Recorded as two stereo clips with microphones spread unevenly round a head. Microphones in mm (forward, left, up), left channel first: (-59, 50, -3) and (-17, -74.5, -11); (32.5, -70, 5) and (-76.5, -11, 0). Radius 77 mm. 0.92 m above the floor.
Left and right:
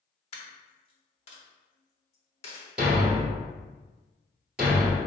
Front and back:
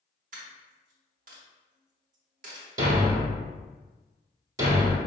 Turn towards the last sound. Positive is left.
turn(degrees=-155)